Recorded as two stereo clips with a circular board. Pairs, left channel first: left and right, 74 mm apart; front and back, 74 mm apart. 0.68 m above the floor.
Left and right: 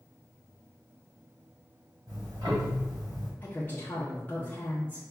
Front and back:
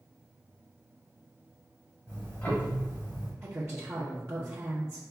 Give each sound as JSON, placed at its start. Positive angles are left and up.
{"t": 2.1, "sound": "ticking", "azimuth_deg": -65, "distance_m": 1.7}
{"t": 3.4, "sound": "a woman speaking", "azimuth_deg": 145, "distance_m": 0.8}